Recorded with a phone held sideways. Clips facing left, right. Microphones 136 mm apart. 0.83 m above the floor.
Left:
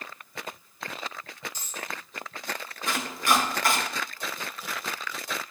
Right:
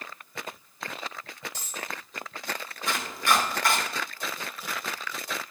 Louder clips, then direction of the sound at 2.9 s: Even; centre (ahead or behind).